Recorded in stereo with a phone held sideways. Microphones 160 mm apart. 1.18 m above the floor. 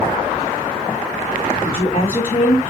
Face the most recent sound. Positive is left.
turn(degrees=55)  # may be behind; listen again after turning